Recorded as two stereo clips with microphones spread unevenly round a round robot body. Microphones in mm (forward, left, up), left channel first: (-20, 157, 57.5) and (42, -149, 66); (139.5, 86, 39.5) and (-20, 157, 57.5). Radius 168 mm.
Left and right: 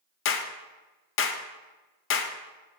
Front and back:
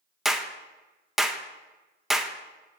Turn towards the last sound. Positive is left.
turn(degrees=65)